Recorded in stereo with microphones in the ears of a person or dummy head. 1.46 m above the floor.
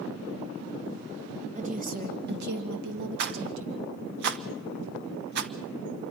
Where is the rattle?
50° right (ahead or behind), 0.9 m.